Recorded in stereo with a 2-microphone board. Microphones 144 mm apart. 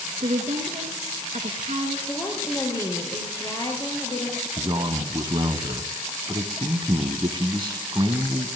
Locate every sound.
0.2 s a woman speaking: 55° right (ahead or behind), 2 m
2.1 s a woman speaking: 25° left (ahead or behind), 3.5 m
4.6 s a man speaking: 35° right (ahead or behind), 1.2 m